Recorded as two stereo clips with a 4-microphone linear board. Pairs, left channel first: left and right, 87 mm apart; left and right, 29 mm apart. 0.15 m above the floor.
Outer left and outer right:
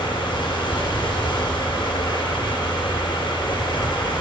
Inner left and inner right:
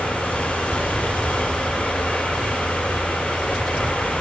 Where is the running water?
60° left (ahead or behind), 3 m.